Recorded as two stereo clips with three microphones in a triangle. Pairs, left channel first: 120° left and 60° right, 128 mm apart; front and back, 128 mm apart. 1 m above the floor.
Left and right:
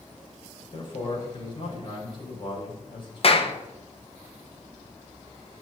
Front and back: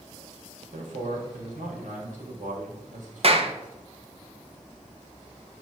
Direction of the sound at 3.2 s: 150° left.